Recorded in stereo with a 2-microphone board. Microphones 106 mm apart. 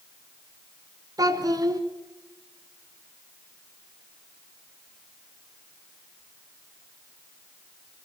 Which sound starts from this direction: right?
A child speaking, at 1.2 s.